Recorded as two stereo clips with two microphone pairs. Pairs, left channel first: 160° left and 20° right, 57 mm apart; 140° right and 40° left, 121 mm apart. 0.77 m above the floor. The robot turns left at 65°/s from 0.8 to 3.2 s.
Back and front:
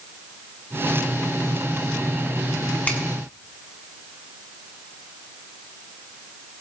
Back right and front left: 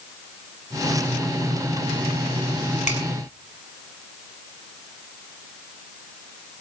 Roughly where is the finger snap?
Behind right.